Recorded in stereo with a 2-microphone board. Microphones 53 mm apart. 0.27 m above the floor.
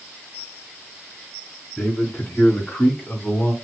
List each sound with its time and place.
1.8 s a man speaking: 15° left (ahead or behind), 3.5 m; by 3.5 s 25° left (ahead or behind), 2.5 m